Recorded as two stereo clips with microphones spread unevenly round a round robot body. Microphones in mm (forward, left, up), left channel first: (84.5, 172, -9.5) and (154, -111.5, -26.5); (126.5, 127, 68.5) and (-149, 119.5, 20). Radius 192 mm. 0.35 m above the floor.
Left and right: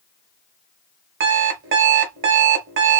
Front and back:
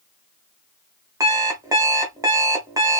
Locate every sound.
1.2 s an alarm clock: 110° right, 0.7 m